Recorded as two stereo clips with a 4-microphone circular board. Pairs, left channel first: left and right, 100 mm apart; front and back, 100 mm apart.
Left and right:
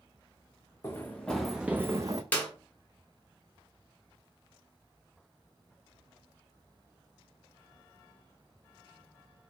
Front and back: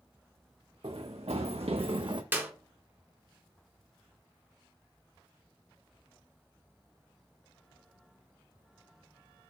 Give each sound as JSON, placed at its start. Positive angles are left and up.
{"t": 0.8, "sound": "running footsteps", "azimuth_deg": 155, "distance_m": 0.8}
{"t": 2.3, "sound": "a clap", "azimuth_deg": 140, "distance_m": 1.3}